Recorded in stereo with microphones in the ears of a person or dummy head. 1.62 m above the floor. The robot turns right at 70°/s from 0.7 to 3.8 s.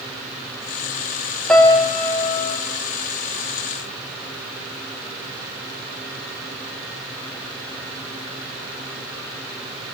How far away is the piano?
About 1.0 m.